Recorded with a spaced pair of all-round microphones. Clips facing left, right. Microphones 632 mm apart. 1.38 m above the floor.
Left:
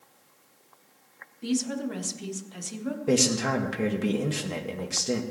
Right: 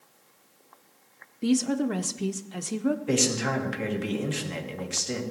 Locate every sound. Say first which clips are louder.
1.4 s a woman speaking: right 5 dB; 75° right (ahead or behind), 0.7 m
3.1 s a man speaking: left 2 dB; 65° left (ahead or behind), 1.5 m